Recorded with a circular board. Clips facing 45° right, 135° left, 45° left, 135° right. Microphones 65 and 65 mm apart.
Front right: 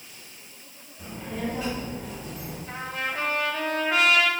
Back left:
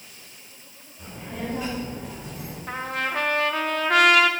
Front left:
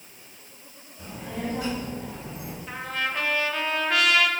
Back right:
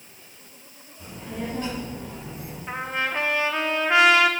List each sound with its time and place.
1.0 s a child speaking: 40° left, 4.5 m; by 2.6 s 60° left, 4.5 m
2.7 s a trumpet: 160° left, 1.3 m